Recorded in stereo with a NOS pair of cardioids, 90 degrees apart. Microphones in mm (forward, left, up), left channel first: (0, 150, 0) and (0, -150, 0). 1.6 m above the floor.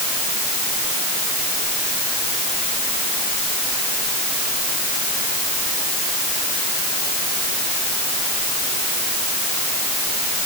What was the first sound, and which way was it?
Only background noise.